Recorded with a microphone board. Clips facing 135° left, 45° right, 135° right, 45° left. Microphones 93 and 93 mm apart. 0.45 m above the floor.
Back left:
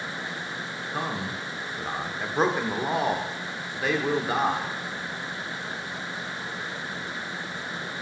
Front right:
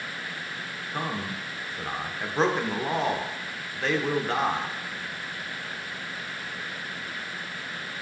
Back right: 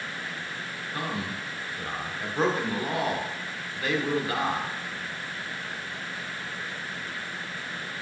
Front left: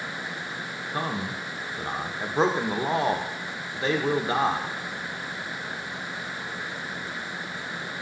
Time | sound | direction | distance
0.9 | a man speaking | 60° left | 0.9 m